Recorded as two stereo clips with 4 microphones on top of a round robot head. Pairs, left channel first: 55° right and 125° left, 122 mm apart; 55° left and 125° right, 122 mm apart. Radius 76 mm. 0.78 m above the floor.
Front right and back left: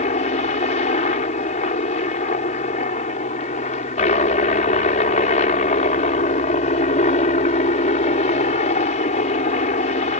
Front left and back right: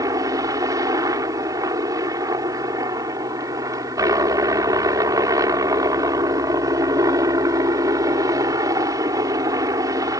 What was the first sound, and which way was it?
A helicopter, 65° right.